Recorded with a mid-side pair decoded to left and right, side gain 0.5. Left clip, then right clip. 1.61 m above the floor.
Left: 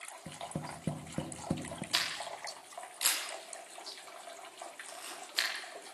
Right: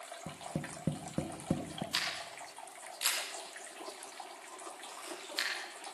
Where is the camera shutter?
30° left, 8.5 m.